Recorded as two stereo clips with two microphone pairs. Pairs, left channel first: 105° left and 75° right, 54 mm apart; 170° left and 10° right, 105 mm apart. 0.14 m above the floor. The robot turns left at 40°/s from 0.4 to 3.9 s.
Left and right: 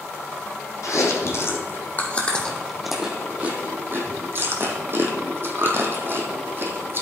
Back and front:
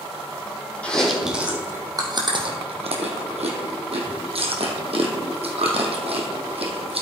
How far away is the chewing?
About 1.7 m.